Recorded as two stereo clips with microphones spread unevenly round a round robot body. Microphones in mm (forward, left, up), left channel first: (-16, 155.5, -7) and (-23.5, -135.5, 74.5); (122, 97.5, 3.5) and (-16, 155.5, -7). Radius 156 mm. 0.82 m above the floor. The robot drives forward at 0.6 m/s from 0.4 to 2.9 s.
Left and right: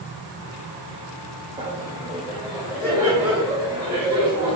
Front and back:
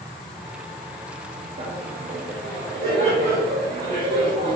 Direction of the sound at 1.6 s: 160° right.